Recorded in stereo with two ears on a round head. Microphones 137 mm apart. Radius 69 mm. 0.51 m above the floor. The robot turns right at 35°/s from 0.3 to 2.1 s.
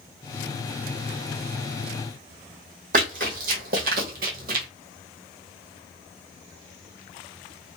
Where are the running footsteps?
60° right (ahead or behind), 1.6 m; by 4.7 s 65° right (ahead or behind), 1.0 m.